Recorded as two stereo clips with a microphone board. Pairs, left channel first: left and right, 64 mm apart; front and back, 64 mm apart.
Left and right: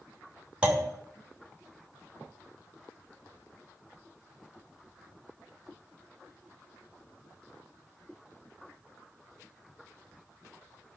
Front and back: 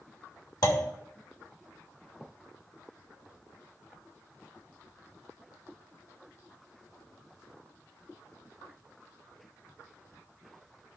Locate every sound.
0.6 s a clunk: 20° right, 3 m